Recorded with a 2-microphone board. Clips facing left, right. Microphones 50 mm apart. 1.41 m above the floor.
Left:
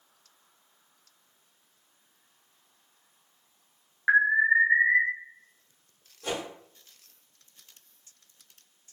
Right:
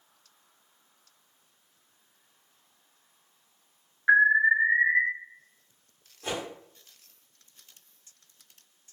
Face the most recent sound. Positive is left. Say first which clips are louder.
# left 1 dB
turn(degrees=-15)  # may be behind; listen again after turning